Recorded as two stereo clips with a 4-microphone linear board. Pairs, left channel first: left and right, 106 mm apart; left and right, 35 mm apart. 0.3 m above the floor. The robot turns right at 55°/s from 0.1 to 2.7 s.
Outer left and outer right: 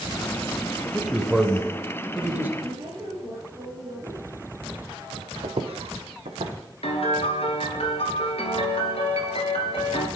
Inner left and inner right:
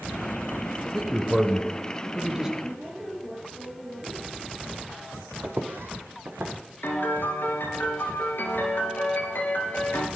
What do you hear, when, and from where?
0.8 s a man speaking: 5° left (ahead or behind), 0.9 m; by 2.5 s 20° right (ahead or behind), 0.9 m
2.6 s a woman speaking: 55° right (ahead or behind), 4.5 m; by 4.5 s 50° right (ahead or behind), 4.5 m
5.4 s footsteps: 65° right (ahead or behind), 0.7 m; by 7.6 s 80° right, 2 m
6.8 s a piano: 70° left (ahead or behind), 1.4 m